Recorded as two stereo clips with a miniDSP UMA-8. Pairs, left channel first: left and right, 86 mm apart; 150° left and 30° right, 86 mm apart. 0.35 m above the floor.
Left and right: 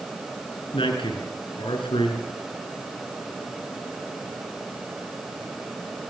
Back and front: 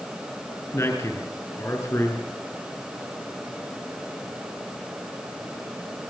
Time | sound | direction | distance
0.7 | a man speaking | 95° left | 6.5 m